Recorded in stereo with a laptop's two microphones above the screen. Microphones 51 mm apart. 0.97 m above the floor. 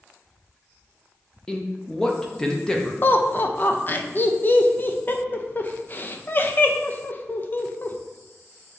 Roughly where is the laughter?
Left.